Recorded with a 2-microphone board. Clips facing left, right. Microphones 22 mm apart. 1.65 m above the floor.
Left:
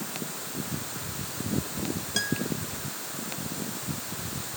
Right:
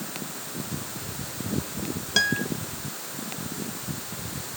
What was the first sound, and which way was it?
A guitar, 30° right (ahead or behind).